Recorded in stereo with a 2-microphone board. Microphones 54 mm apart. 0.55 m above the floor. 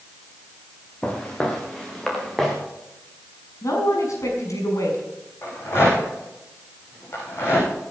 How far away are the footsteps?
About 4.5 m.